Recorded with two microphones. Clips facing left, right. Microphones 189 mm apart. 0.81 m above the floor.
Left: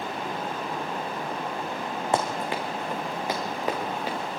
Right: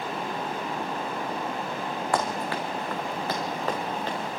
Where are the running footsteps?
20° left (ahead or behind), 4 m; by 4.2 s 10° left (ahead or behind), 6 m.